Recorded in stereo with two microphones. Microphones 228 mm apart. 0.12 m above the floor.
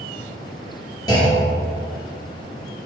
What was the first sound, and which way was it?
A clunk, 15° left (ahead or behind).